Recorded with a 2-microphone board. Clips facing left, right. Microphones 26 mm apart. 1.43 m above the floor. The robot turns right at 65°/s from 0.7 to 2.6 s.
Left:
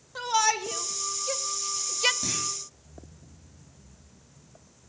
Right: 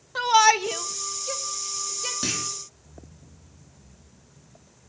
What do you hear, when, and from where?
0.1 s a shout: 35° right (ahead or behind), 0.6 m; by 2.1 s 45° left (ahead or behind), 0.6 m
2.2 s a clunk: 75° right (ahead or behind), 4 m; by 2.5 s 65° right (ahead or behind), 4 m